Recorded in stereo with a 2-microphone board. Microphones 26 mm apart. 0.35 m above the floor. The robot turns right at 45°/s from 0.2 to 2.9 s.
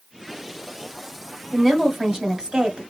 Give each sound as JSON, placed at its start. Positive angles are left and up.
{"t": 1.5, "sound": "a woman speaking", "azimuth_deg": 175, "distance_m": 1.0}